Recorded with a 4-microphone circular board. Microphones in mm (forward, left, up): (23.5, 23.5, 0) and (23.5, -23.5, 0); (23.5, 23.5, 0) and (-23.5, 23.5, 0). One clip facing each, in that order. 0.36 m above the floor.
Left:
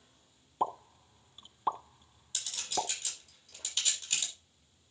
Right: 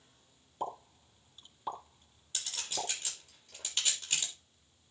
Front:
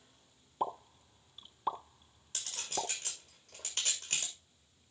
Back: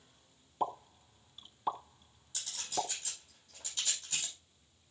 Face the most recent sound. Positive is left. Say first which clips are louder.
# left 4 dB, back 2 dB
turn(degrees=-25)